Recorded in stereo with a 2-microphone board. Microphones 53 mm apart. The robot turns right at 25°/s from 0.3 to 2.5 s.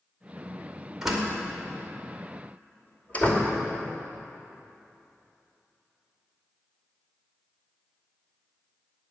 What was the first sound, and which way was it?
A door slam, 5° right (ahead or behind).